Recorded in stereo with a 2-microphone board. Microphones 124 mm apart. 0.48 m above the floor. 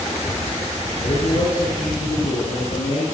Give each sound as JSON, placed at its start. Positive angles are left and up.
{"t": 1.0, "sound": "a man speaking", "side_deg": 75, "distance_m": 9.0}